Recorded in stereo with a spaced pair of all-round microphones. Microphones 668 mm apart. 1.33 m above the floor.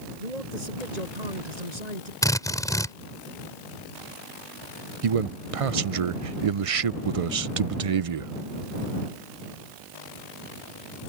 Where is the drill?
5° left (ahead or behind).